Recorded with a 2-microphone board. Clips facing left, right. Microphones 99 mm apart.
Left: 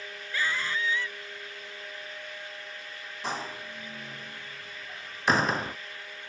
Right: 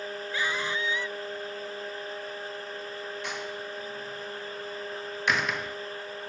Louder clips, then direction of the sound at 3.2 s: Even; 35° left (ahead or behind).